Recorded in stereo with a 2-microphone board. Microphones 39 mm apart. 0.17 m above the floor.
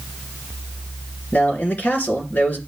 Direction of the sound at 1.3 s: 40° left (ahead or behind).